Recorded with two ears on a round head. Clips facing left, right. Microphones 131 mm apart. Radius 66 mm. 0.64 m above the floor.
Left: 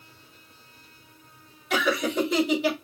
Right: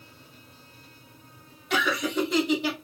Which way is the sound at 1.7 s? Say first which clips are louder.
Left 2 dB; centre (ahead or behind).